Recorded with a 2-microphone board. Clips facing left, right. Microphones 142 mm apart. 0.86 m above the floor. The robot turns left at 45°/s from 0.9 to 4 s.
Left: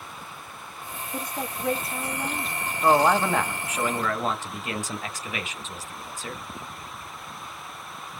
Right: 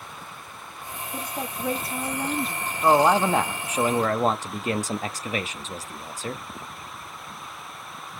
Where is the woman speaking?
5° right, 1.5 m; by 2.7 s 75° right, 1.5 m.